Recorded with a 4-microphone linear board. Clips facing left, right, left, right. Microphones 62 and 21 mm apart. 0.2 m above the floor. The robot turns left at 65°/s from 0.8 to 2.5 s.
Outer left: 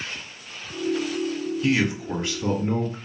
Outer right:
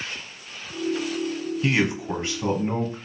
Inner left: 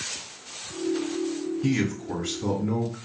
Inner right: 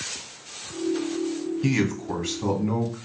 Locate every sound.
1.6 s a man speaking: 60° right, 1.2 m; by 3.0 s 115° right, 1.2 m